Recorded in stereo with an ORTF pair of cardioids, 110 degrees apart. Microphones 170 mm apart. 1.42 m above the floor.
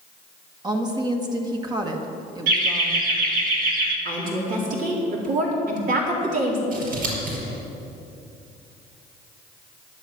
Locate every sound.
0.6 s a woman speaking: 25° right, 1.9 m
2.5 s laughter: 65° right, 1.4 m
4.0 s a woman speaking: 55° right, 3.5 m
6.7 s scissors: 65° right, 5 m